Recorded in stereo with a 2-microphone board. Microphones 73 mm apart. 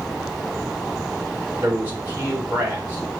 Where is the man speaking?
25° right (ahead or behind), 5.5 m.